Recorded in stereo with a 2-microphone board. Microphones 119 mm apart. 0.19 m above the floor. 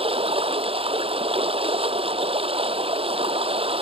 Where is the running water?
60° right (ahead or behind).